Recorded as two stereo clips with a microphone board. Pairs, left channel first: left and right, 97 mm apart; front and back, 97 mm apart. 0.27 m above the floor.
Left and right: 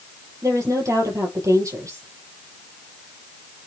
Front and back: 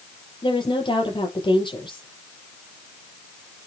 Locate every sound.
0.4 s a woman speaking: 35° right, 6.5 m